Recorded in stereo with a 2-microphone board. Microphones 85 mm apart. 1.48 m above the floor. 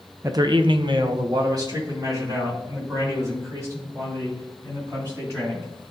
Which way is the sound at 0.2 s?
35° right (ahead or behind).